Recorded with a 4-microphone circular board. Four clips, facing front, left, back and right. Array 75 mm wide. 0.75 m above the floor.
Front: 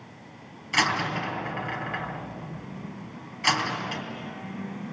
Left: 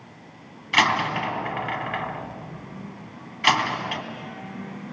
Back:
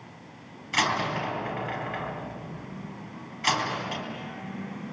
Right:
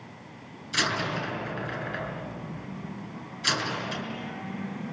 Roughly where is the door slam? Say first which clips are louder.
Left 8 dB, front 1 dB; left.